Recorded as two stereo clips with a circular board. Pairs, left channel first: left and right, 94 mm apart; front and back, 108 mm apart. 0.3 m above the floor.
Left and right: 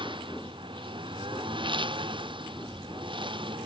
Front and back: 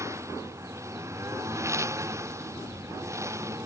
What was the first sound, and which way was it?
A lawn mower, 120° right.